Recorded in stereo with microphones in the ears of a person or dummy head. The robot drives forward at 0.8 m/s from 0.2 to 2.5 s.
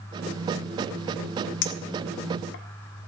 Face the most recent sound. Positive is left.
turn(degrees=65)  # may be behind; listen again after turning